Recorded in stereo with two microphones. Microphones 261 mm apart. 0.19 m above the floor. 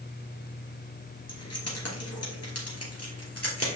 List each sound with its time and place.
1.3 s keys jangling: 70° left (ahead or behind), 2 m; by 3.8 s 60° left (ahead or behind), 2.5 m